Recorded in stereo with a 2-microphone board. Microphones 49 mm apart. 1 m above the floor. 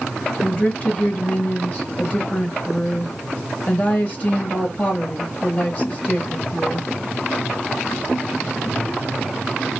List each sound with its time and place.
0.4 s a woman speaking: 30° left (ahead or behind), 0.8 m